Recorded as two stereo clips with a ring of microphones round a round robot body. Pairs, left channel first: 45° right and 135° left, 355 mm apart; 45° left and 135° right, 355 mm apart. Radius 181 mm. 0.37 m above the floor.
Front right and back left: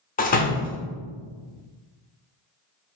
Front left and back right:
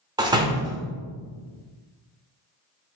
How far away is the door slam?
About 0.6 m.